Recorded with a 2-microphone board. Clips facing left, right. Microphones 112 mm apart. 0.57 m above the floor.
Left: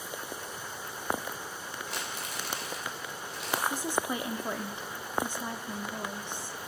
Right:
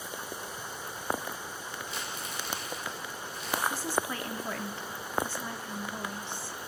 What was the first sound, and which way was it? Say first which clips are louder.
Crumpling: even; 75° left (ahead or behind).